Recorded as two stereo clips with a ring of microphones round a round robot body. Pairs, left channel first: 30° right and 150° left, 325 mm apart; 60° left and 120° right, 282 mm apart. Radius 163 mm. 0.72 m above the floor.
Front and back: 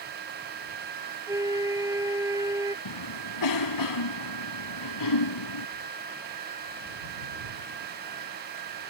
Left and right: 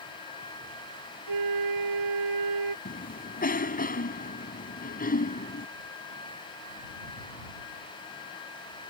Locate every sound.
1.3 s a flute: 130° right
2.9 s a cough: straight ahead